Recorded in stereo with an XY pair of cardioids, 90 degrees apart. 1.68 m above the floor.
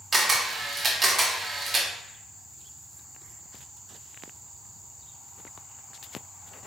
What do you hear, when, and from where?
0.1 s a camera shutter: 35° right, 1.4 m